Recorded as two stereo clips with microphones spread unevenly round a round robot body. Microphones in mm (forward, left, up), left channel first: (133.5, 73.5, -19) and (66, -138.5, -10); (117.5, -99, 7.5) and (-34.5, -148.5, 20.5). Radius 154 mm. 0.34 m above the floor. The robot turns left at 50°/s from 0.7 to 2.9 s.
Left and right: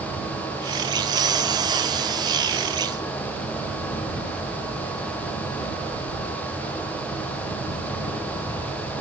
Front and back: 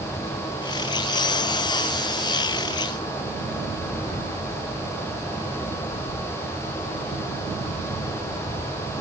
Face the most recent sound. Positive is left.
No sound to turn to.